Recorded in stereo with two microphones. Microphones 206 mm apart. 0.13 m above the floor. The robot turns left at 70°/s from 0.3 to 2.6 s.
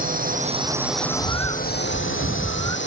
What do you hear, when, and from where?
0.0 s a drone: 45° right (ahead or behind); by 2.9 s 65° left (ahead or behind)
1.0 s a bird: 85° right; by 2.8 s 165° left